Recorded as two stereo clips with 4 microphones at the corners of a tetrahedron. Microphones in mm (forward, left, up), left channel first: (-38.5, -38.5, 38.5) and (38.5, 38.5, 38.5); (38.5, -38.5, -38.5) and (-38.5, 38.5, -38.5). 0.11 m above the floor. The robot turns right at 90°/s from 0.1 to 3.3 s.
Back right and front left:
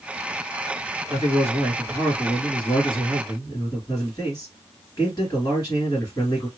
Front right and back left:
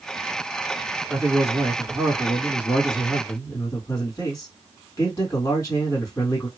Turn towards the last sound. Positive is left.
turn(degrees=-95)